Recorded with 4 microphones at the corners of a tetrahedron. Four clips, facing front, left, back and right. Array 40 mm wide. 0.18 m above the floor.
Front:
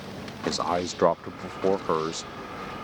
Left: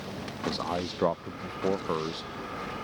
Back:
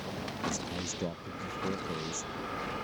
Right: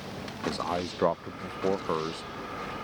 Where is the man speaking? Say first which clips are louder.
Right 1 dB, front 14 dB; 5° right.